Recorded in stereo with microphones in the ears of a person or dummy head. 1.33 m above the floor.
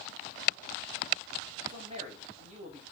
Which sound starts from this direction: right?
A man speaking, at 1.7 s.